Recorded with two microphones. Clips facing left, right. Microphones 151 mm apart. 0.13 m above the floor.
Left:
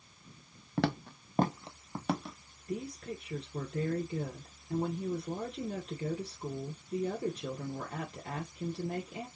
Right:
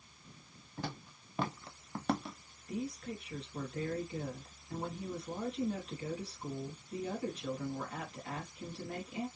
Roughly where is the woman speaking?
Left.